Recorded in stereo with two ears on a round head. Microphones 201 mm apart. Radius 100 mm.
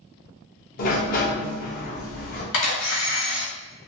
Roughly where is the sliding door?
Left.